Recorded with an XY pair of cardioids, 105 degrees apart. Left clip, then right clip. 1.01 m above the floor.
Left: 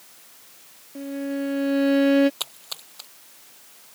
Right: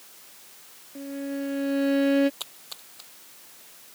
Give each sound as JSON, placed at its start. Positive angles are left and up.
{"t": 0.9, "sound": "a violin", "azimuth_deg": 25}
{"t": 2.4, "sound": "a splash", "azimuth_deg": 45}